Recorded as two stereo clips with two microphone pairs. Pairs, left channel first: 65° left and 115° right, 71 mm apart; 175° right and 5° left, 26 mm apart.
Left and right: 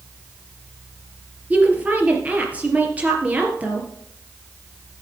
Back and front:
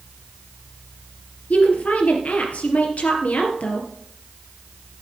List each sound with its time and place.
1.5 s a woman speaking: straight behind, 3 m